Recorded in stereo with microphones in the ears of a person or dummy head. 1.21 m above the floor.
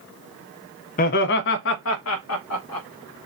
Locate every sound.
1.0 s laughter: 40° left (ahead or behind), 0.6 m; by 2.9 s 75° left (ahead or behind), 1.8 m